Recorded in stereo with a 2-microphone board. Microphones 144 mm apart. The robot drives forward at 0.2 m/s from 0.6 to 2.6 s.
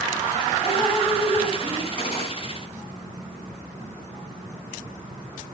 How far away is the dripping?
About 2.5 m.